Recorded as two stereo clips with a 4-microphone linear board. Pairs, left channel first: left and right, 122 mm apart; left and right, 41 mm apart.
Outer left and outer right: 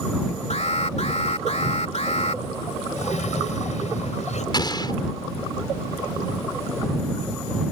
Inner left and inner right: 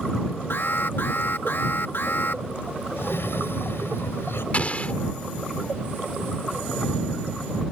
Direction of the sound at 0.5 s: 65° left (ahead or behind).